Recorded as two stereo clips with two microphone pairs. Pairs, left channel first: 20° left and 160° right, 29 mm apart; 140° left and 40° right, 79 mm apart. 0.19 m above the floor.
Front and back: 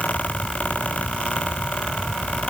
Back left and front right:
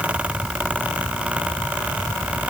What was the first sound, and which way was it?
Only background noise.